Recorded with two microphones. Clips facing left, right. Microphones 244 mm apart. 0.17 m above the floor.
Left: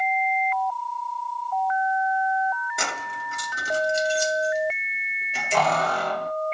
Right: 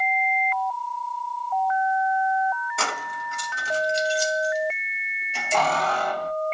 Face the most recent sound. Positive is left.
turn(degrees=65)  # may be behind; listen again after turning